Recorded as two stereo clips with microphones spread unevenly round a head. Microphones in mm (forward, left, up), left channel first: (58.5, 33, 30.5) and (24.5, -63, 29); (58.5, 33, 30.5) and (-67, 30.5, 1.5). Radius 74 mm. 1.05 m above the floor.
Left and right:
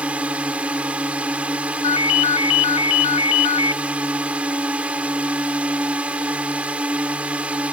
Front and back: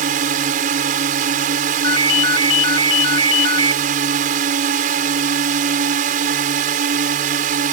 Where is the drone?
170° left.